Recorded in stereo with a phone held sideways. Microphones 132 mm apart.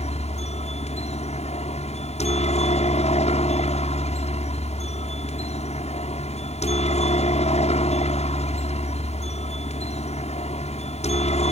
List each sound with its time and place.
0.0 s a helicopter: 55° left (ahead or behind)